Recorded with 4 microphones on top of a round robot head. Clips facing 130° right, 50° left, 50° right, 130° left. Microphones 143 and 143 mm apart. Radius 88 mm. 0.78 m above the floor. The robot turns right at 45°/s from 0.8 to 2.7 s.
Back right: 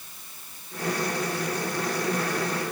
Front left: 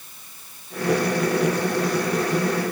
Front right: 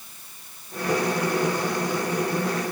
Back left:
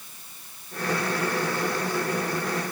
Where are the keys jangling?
I don't hear keys jangling.